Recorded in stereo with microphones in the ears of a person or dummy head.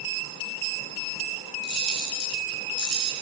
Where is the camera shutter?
55° right (ahead or behind), 9.5 m.